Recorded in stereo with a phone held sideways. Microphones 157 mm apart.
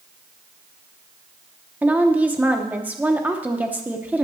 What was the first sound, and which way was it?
A woman speaking, 10° right (ahead or behind).